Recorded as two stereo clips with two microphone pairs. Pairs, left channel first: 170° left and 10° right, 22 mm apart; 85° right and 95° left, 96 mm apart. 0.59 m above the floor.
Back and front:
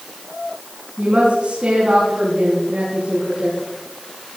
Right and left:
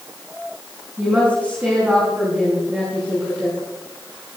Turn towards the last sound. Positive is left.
turn(degrees=20)